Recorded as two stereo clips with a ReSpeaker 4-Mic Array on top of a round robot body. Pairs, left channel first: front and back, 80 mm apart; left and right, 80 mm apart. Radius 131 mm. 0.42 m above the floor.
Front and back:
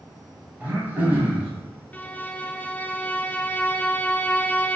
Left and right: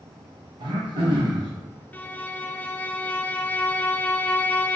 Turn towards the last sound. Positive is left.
turn(degrees=45)